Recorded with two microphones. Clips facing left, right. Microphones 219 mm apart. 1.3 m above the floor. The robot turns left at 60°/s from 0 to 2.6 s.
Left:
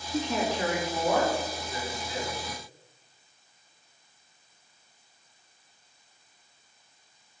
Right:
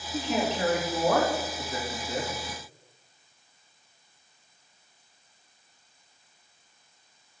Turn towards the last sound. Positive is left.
turn(degrees=-155)